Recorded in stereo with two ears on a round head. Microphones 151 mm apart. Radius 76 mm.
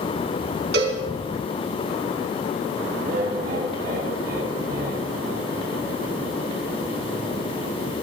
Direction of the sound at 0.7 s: 70° right (ahead or behind).